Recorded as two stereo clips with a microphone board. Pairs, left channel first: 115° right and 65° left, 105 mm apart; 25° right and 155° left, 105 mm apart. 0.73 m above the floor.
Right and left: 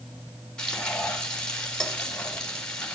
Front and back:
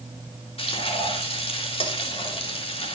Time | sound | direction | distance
0.6 | frying | 30° right | 3.5 m